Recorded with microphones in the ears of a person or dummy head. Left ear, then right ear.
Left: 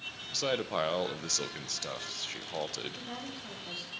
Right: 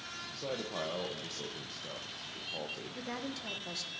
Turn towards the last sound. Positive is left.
turn(degrees=-65)  # may be behind; listen again after turning